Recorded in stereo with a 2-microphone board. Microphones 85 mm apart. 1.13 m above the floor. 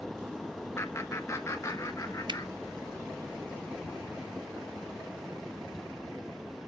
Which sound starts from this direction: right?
A finger snap, at 2.3 s.